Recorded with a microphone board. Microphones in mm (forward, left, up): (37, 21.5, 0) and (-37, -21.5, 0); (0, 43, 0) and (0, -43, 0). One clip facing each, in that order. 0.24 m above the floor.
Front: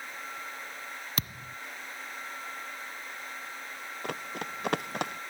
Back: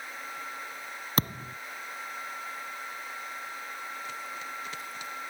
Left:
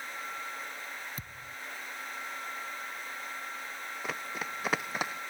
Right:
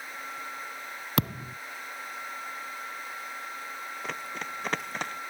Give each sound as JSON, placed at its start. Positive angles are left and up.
{"t": 1.2, "sound": "a thud", "azimuth_deg": -100}
{"t": 4.0, "sound": "running footsteps", "azimuth_deg": 0}